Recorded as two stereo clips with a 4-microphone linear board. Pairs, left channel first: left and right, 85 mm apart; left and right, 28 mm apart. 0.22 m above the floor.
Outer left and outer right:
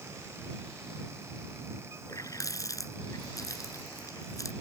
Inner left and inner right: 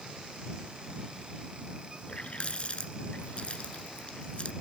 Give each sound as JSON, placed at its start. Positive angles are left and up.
{"t": 2.1, "sound": "a running tap", "side_deg": 45}